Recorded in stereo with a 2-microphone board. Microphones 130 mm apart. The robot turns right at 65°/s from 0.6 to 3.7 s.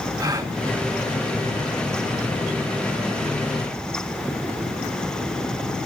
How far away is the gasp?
About 1.7 m.